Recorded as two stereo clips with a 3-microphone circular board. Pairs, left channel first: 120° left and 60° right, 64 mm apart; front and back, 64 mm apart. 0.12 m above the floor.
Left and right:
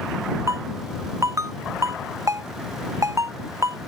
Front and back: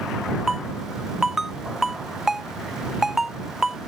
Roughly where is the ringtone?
Right.